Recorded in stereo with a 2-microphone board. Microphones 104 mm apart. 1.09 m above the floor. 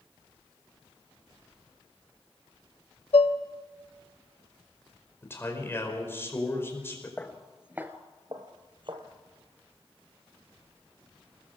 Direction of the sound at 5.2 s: 25° left (ahead or behind).